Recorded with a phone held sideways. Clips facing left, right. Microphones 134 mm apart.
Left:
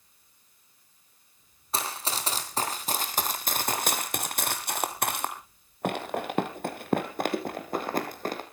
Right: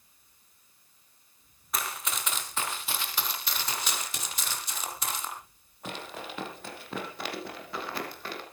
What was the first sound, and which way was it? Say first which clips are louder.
Running footsteps: left 3 dB; 30° left (ahead or behind).